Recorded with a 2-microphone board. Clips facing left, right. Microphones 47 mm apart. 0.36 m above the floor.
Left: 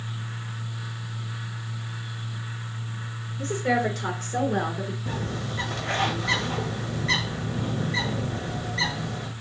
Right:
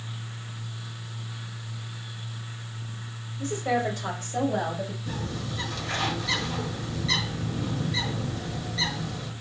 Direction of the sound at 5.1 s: 45° left (ahead or behind).